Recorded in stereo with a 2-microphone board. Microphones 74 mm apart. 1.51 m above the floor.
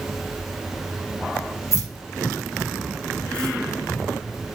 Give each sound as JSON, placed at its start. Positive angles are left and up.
{"t": 1.7, "sound": "keys jangling", "side_deg": 45, "distance_m": 1.3}